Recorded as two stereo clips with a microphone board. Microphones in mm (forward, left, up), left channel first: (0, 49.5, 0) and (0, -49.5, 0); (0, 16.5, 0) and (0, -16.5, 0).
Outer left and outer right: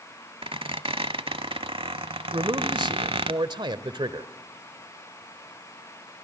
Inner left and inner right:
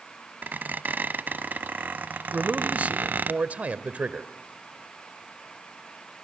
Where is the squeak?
70° right (ahead or behind), 0.7 m.